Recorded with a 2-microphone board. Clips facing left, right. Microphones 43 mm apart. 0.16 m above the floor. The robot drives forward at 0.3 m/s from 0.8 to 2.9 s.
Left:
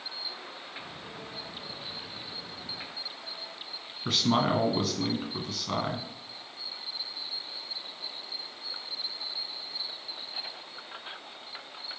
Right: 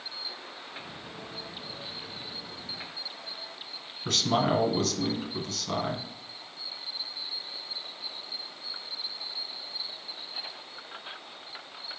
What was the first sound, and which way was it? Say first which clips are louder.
A man speaking: even; 15° left (ahead or behind).